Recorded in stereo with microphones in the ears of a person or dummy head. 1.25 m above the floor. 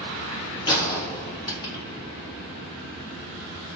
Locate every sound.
0.7 s a gunshot: 20° left (ahead or behind), 0.6 m